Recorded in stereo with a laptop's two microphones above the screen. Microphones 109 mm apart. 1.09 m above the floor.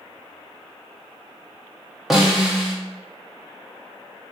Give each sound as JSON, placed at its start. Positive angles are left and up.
{"t": 2.1, "sound": "a snare drum", "side_deg": 0, "distance_m": 0.7}